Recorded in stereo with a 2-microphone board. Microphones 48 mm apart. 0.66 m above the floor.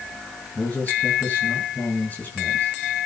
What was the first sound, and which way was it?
A man speaking, 30° left (ahead or behind).